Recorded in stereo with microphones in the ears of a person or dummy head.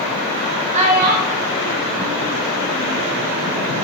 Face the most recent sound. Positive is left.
turn(degrees=-50)  # may be behind; listen again after turning